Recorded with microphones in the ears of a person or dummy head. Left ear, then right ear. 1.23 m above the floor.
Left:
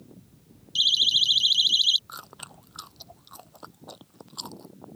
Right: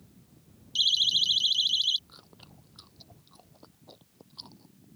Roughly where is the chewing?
Left.